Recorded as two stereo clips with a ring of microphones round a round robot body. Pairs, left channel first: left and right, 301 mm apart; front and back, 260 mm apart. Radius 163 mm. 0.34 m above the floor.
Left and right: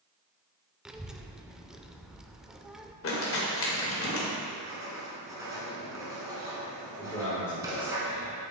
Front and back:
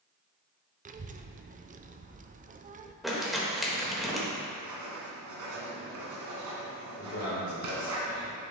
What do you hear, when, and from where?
0.8 s a child speaking: 175° right, 0.5 m
3.0 s crumpling: 90° left, 1.6 m
4.5 s writing: 170° right, 1.5 m
7.0 s a man speaking: 10° left, 2.5 m